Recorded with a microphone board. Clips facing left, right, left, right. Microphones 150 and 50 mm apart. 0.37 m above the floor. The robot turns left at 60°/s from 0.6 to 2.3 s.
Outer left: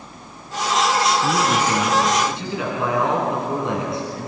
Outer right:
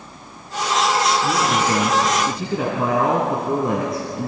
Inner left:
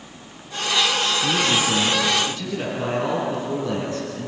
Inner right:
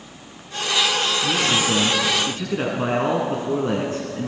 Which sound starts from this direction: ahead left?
A man speaking, at 1.2 s.